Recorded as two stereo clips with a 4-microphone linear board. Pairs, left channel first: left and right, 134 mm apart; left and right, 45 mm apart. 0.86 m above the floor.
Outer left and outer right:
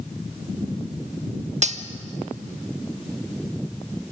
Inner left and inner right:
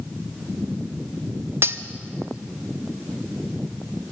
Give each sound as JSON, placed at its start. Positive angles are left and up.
{"t": 1.6, "sound": "cutlery clinking", "side_deg": -60, "distance_m": 1.0}